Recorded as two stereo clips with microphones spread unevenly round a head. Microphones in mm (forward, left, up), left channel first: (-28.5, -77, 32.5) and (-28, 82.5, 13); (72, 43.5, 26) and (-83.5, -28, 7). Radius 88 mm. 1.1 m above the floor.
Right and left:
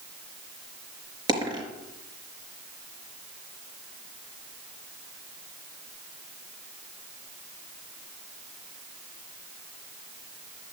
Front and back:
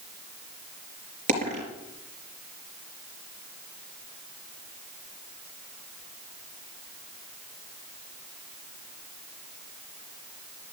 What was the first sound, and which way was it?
A dropped coin, 155° left.